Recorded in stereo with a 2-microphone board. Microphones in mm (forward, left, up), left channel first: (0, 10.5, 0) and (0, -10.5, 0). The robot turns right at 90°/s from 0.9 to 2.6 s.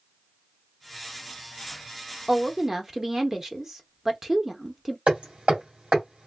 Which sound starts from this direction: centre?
A woman speaking, at 2.3 s.